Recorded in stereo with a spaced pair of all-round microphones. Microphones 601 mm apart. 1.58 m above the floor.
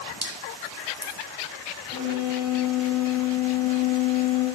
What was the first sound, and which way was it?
Dripping, 25° right (ahead or behind).